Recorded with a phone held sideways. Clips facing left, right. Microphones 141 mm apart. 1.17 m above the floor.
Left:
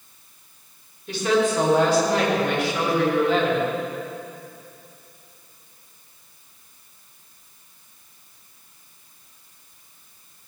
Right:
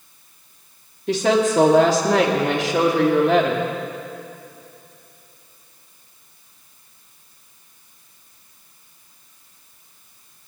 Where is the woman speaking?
70° right (ahead or behind), 2.5 m; by 3.7 s 65° right (ahead or behind), 2.5 m.